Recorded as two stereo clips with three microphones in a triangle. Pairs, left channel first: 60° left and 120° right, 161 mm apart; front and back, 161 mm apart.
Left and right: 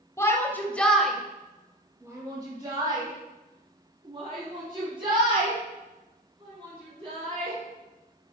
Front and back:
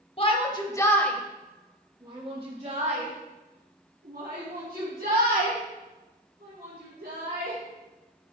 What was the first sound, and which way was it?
A shout, straight ahead.